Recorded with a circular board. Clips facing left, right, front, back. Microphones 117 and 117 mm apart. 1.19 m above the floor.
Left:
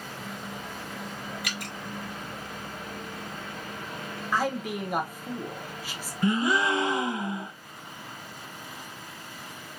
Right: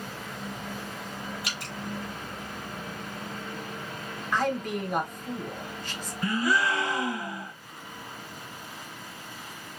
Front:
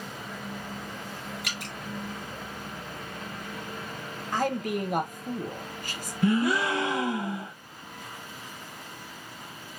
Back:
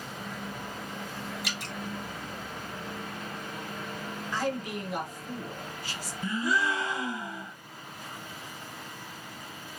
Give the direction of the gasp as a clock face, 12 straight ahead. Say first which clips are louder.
Left 2 dB, front 5 dB; 11 o'clock.